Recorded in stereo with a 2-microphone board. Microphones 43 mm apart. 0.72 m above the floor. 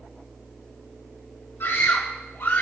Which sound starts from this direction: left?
A scream, at 1.6 s.